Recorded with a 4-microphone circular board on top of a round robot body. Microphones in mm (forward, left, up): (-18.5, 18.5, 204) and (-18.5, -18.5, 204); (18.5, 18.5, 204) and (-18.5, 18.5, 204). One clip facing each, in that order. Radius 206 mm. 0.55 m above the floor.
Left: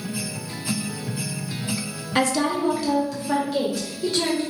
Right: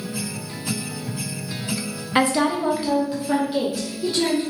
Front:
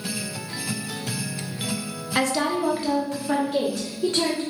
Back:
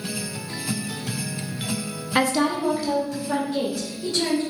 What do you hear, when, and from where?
2.1 s a woman speaking: 130° right, 0.9 m; by 4.4 s 15° right, 1.9 m